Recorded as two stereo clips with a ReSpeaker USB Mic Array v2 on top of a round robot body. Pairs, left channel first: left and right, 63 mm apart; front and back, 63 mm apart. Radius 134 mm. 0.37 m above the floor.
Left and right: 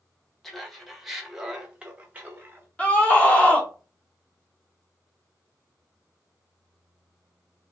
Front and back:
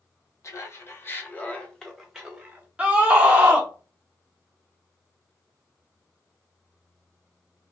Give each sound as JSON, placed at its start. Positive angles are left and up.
{"t": 0.4, "sound": "laughter", "azimuth_deg": 5, "distance_m": 1.4}
{"t": 2.8, "sound": "a scream", "azimuth_deg": 135, "distance_m": 1.3}